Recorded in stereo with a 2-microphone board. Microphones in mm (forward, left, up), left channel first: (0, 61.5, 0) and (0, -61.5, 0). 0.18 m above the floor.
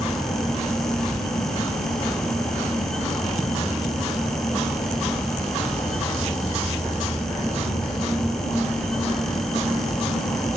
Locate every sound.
0.0 s an insect: 35° left (ahead or behind), 1.8 m